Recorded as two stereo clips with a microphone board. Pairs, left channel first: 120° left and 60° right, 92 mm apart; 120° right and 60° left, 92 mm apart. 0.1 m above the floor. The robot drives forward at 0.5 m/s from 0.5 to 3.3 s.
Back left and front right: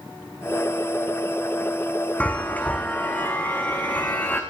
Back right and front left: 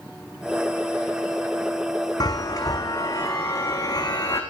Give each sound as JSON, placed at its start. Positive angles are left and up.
{"t": 2.2, "sound": "a chime", "azimuth_deg": -165, "distance_m": 1.5}